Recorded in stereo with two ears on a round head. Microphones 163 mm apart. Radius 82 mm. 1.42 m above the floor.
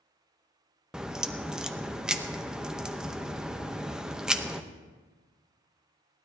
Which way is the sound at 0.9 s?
5° right (ahead or behind).